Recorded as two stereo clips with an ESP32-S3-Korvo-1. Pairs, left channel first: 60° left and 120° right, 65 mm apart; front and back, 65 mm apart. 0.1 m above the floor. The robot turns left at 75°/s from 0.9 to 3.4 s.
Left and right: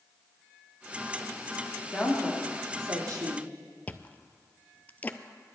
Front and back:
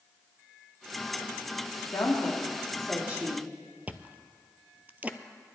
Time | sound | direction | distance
1.9 | a woman speaking | 25° right | 4 m
3.9 | chewing | 120° left | 0.6 m